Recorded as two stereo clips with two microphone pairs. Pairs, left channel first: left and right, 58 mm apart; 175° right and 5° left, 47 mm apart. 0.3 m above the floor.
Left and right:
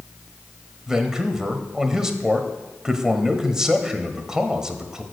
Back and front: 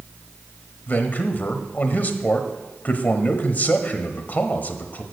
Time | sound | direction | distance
0.9 | a man speaking | 165° right | 1.2 m